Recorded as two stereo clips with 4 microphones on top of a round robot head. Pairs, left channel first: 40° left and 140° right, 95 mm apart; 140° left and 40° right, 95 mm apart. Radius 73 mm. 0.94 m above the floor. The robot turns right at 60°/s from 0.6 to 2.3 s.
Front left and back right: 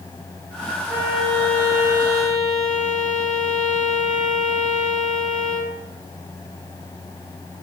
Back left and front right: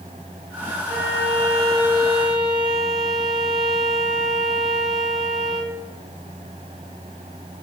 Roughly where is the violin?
Behind left.